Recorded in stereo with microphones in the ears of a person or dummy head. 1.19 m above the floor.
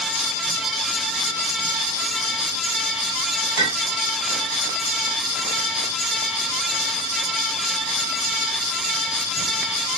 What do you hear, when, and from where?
3.6 s a clink: 60° right (ahead or behind), 2.5 m